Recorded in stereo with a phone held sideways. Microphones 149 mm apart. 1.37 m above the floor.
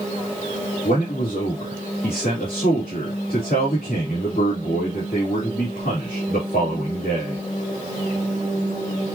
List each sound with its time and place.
0.8 s a man speaking: 85° left, 2.5 m